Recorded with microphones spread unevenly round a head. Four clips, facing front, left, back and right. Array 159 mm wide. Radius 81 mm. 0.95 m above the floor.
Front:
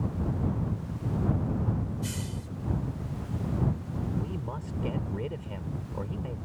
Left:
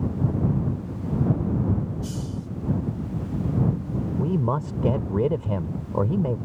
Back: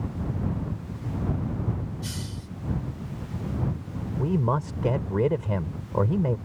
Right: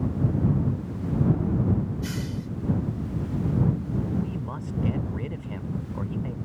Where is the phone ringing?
I don't hear a phone ringing.